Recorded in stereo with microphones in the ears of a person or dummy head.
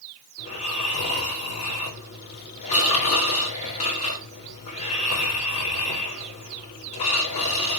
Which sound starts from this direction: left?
Snoring, at 0.4 s.